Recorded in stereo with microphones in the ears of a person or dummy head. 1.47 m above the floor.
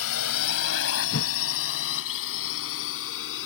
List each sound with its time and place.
0.0 s a drone: 80° left; by 3.5 s 70° left (ahead or behind)
1.1 s a whoosh: 70° left (ahead or behind)